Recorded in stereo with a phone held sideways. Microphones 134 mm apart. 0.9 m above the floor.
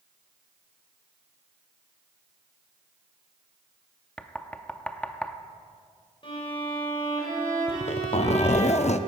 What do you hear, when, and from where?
4.2 s knocking: 10° left (ahead or behind), 0.7 m
6.2 s a violin: 40° left (ahead or behind), 4 m
7.7 s a zipper: 55° left (ahead or behind), 0.5 m